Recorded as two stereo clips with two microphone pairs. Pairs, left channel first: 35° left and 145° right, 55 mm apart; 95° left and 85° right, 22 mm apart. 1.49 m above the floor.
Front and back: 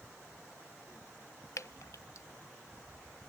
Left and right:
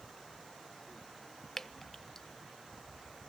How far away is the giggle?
No giggle in this recording.